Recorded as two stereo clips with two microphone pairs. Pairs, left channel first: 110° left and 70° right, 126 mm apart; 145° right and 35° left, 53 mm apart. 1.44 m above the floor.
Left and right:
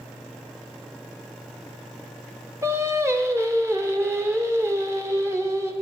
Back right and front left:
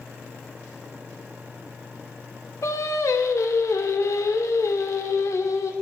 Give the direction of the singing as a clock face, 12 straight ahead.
5 o'clock.